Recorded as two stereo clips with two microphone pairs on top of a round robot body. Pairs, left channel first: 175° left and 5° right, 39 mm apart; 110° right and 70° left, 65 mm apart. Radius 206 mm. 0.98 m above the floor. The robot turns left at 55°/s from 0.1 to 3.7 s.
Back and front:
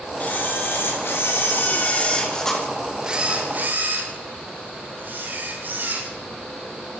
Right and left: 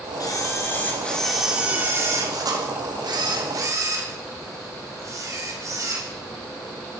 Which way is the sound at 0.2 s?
140° right.